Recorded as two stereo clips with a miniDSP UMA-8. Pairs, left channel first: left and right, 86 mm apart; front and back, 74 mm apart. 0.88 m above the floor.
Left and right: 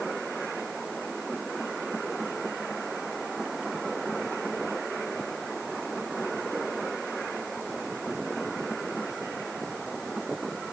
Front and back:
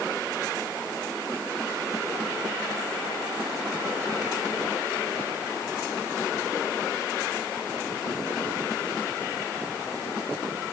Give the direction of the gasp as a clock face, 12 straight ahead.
I don't hear a gasp.